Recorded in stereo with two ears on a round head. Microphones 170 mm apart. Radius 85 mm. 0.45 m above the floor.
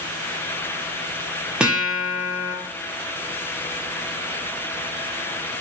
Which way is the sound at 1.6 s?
5° right (ahead or behind).